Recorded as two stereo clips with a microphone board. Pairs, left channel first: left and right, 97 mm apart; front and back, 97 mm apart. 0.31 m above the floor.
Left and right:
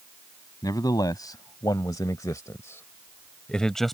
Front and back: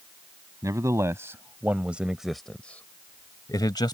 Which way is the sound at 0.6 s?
130° left.